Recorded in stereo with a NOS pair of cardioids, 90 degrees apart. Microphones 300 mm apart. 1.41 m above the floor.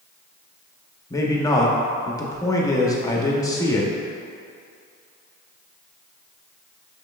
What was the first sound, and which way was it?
A man speaking, 10° left.